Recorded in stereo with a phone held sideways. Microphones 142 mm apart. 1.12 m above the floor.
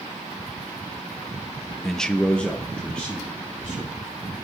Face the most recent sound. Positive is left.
turn(degrees=10)  # may be behind; listen again after turning